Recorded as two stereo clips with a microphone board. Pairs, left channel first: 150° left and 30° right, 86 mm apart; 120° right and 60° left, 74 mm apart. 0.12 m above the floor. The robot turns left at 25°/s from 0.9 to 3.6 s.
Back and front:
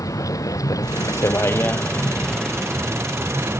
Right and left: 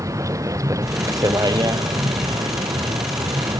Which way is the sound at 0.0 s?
100° left.